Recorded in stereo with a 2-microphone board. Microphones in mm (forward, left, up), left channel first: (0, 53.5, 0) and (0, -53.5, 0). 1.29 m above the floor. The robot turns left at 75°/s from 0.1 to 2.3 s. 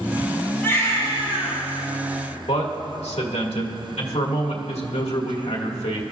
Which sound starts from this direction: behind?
A baby crying, at 0.6 s.